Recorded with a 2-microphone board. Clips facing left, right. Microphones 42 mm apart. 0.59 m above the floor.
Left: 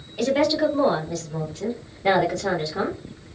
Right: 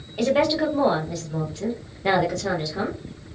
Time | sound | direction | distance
0.2 | a woman speaking | 20° right (ahead or behind) | 1.4 m